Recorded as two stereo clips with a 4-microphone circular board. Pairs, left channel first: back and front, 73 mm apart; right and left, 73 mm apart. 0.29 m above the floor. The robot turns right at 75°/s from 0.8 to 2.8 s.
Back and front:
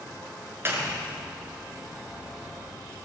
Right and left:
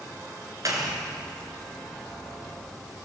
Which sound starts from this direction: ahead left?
A clap, at 0.7 s.